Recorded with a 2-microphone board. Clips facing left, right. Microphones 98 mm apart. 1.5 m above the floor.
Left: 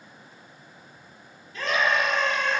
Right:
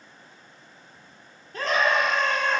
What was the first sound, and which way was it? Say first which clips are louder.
A scream: right 1 dB; 45° right (ahead or behind).